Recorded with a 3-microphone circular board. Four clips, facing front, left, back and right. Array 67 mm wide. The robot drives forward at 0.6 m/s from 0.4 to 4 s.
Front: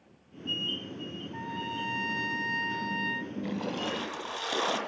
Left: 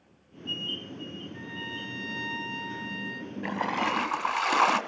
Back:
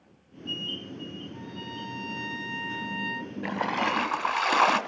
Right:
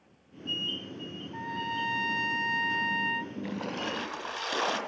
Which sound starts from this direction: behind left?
A splash, at 3.4 s.